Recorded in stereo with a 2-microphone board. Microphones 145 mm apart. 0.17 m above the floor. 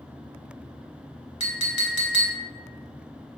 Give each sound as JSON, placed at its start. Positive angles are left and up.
{"t": 1.4, "sound": "a clink", "side_deg": 40, "distance_m": 0.9}